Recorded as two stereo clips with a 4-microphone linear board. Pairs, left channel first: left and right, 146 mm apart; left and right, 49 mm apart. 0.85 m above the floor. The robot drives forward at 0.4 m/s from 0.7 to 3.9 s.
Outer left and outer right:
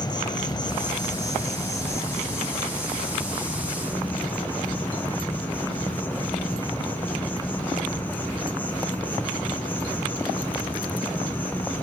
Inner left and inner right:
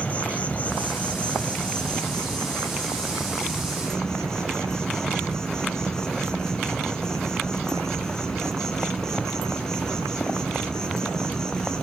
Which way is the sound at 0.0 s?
30° left (ahead or behind).